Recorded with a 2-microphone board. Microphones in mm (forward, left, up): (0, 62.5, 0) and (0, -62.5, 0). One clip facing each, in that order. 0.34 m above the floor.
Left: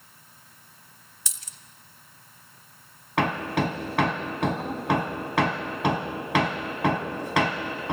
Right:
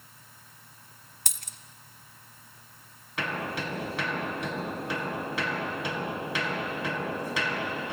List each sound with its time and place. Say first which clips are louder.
1.3 s a dropped coin: right 5 dB; 55° right (ahead or behind), 0.7 m
3.2 s hammering: left 8 dB; 65° left (ahead or behind), 1.8 m